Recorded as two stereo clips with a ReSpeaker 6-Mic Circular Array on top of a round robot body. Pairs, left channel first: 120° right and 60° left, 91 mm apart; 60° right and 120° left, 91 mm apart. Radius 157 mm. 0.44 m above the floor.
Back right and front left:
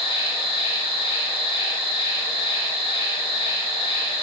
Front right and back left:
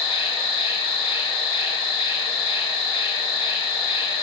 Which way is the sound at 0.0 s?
95° right.